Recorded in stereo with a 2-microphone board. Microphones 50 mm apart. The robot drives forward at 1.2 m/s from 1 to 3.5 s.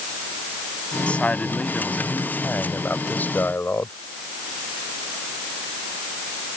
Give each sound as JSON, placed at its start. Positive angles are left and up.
{"t": 1.1, "sound": "a man speaking", "side_deg": 25}